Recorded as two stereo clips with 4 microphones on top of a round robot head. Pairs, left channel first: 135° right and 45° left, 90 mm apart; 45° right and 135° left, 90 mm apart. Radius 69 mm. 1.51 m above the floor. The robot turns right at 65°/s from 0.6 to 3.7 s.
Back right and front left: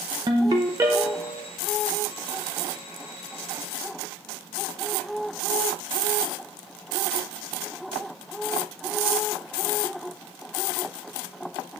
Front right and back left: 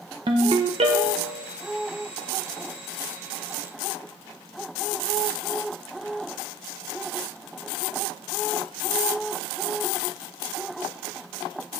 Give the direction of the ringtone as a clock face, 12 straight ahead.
9 o'clock.